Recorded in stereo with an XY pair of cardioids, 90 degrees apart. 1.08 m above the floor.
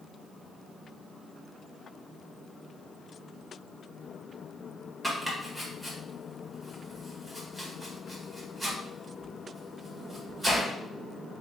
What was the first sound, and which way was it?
Chopping, 10° right.